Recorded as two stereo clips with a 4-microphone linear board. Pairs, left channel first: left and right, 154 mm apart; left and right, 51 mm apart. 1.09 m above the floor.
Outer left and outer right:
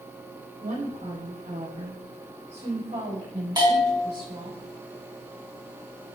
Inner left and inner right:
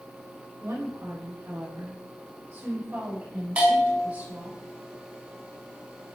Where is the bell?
25° right (ahead or behind), 5 m.